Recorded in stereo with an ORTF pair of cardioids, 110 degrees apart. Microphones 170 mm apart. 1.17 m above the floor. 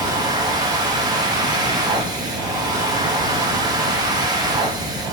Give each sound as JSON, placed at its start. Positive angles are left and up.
{"t": 0.0, "sound": "a machine running", "azimuth_deg": -25, "distance_m": 1.8}